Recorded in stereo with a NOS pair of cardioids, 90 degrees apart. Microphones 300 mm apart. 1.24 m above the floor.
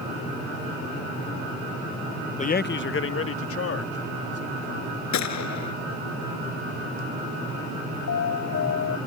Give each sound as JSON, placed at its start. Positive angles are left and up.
{"t": 2.4, "sound": "a man speaking", "azimuth_deg": 25}
{"t": 5.1, "sound": "a gunshot", "azimuth_deg": 65}
{"t": 8.1, "sound": "an alarm", "azimuth_deg": 55}